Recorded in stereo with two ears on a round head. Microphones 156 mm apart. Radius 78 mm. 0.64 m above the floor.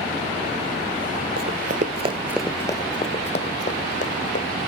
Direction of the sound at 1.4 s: 60° right (ahead or behind).